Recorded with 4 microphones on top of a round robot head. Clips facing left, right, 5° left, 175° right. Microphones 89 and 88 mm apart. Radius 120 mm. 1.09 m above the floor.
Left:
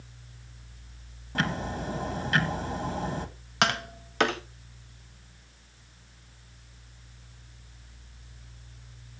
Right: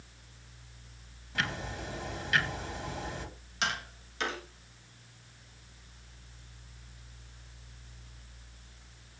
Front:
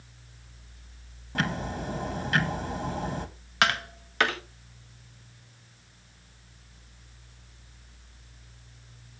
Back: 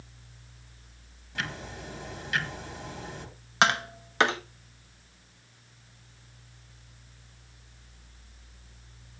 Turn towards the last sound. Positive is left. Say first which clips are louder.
# left 8 dB, back 2 dB
turn(degrees=115)